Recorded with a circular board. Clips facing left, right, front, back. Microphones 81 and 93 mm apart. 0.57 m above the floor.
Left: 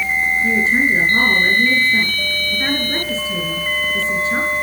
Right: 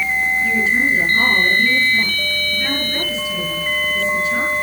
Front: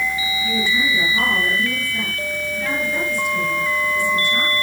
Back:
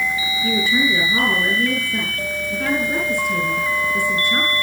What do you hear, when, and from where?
0.4 s a woman speaking: 145° left, 9.5 m